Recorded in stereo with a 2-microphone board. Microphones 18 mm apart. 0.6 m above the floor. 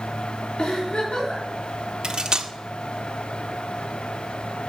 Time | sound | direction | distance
0.6 | a giggle | 60° left (ahead or behind) | 4.5 m
2.0 | cutlery clinking | 45° right (ahead or behind) | 0.8 m